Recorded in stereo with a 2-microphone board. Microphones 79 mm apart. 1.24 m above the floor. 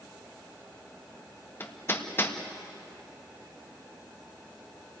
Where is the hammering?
30° left (ahead or behind), 1.5 m.